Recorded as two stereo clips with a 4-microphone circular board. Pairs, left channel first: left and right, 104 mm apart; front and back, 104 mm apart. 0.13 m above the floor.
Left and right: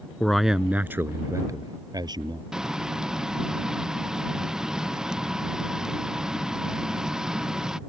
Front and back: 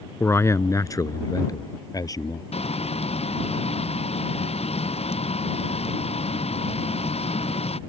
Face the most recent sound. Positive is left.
turn(degrees=-5)